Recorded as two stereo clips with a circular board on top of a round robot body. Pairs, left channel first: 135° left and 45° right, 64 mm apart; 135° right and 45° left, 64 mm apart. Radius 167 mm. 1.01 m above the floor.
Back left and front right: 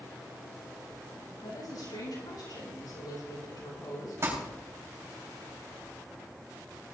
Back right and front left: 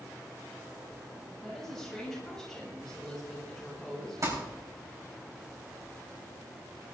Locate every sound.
1.4 s a woman speaking: 140° left, 7.5 m
4.2 s crumpling: 5° left, 4.5 m